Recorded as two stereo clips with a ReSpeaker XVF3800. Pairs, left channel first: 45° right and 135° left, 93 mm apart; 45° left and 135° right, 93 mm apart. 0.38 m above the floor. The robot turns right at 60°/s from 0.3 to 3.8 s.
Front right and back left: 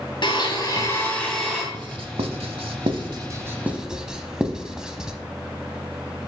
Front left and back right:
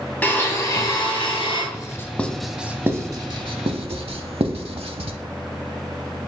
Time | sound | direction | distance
0.2 | a blender | 25° right | 2.5 m
1.7 | writing | 95° left | 0.7 m